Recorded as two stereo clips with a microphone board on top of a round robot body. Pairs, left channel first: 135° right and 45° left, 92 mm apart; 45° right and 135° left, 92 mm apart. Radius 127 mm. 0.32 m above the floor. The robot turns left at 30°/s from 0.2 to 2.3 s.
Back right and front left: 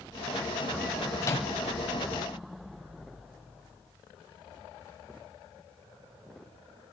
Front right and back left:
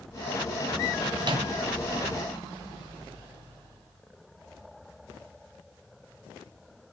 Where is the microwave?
170° left, 3.5 m; by 1.5 s 160° left, 3.5 m.